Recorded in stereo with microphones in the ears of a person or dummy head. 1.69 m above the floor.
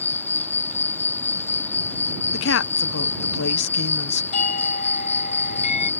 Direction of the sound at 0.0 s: 15° left (ahead or behind).